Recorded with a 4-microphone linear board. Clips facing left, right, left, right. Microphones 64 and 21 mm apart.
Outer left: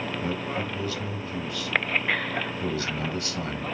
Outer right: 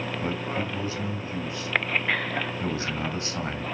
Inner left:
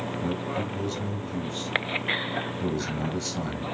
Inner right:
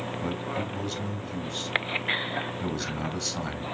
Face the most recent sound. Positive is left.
turn(degrees=-25)  # may be behind; listen again after turning